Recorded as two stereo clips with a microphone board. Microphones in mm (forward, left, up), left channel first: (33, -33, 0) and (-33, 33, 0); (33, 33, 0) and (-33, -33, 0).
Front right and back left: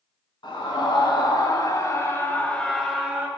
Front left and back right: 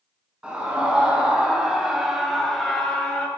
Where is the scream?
60° right, 1.9 m; by 3.3 s 110° left, 1.0 m.